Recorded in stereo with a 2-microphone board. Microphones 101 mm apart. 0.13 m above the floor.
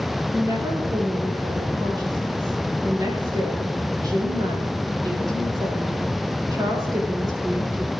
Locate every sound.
0.3 s a woman speaking: 40° right (ahead or behind), 4.5 m